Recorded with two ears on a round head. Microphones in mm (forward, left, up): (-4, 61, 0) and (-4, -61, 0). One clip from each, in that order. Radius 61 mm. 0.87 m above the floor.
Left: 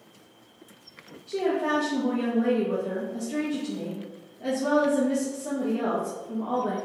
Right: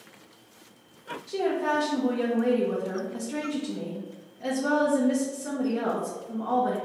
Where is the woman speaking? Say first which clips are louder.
Left 1 dB; 30° right (ahead or behind), 0.5 m.